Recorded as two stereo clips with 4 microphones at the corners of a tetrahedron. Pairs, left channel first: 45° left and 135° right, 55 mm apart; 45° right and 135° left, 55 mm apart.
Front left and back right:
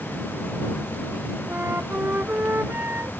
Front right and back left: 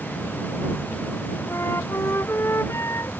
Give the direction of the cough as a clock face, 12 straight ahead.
No cough in this recording.